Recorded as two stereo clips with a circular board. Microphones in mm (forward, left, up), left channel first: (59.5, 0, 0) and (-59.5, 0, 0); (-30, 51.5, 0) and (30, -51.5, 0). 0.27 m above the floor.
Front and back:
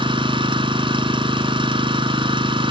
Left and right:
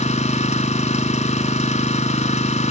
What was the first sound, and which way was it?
An engine running, 135° left.